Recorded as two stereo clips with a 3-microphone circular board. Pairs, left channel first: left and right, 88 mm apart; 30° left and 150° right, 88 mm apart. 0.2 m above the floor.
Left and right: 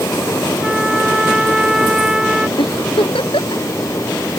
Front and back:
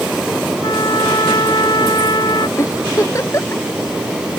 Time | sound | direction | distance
0.6 | a trumpet | 10° right | ?
2.6 | a giggle | 85° left | ?